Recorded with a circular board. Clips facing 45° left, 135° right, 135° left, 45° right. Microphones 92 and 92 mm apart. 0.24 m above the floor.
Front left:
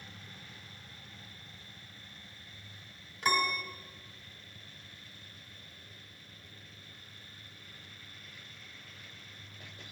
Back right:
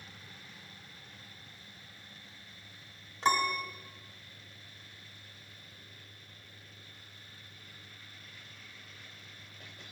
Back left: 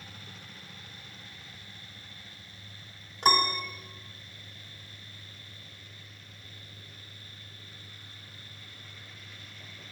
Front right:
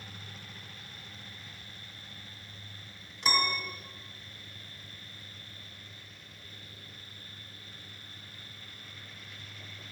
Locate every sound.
3.2 s a piano: 165° left, 0.8 m